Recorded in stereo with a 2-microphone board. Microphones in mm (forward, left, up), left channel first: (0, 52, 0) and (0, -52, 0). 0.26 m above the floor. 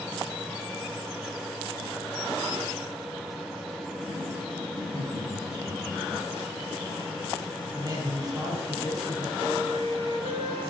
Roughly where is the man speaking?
Right.